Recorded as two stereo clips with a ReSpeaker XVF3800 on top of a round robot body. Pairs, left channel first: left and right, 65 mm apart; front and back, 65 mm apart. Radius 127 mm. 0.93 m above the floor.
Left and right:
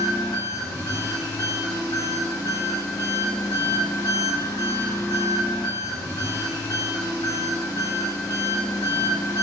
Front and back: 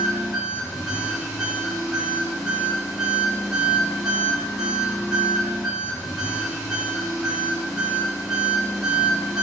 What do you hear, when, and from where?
0.0 s an engine running: 95° left, 1.8 m